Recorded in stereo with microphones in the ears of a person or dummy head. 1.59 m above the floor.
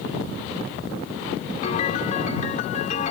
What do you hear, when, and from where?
1.6 s a piano: 50° left (ahead or behind)